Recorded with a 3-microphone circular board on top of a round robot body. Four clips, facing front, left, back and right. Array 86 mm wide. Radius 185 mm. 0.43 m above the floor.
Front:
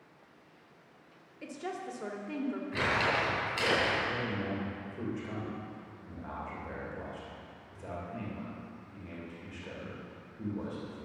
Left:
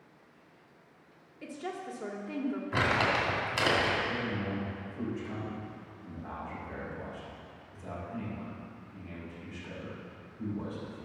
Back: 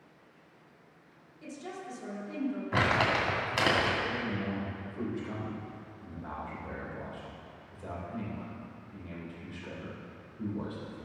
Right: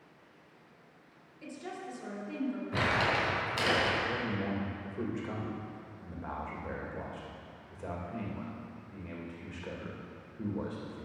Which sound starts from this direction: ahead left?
A woman speaking, at 1.4 s.